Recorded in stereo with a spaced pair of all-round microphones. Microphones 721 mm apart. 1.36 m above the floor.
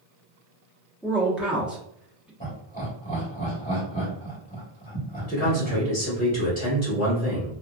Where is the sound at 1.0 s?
Centre (ahead or behind), 0.9 m.